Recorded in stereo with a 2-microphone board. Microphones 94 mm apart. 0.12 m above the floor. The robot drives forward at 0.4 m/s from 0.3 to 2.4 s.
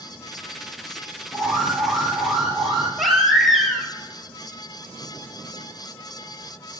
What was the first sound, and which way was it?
An alarm, 5° right (ahead or behind).